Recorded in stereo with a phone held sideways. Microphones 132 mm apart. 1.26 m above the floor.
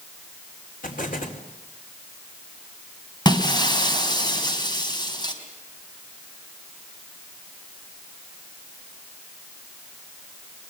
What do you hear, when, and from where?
0.8 s an explosion: 85° left, 4 m
3.2 s breaking glass: 30° left (ahead or behind), 4 m